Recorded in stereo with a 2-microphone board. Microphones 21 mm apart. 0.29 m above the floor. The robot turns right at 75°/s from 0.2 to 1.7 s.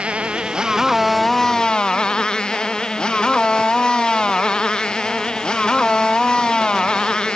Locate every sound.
0.0 s a motorcycle: 75° right; by 7.4 s 40° left